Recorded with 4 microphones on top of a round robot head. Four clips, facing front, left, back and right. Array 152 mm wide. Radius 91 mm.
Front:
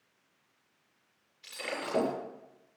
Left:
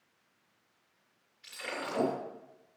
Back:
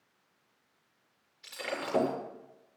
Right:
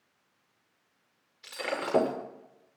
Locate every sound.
1.4 s breaking glass: 95° right, 6 m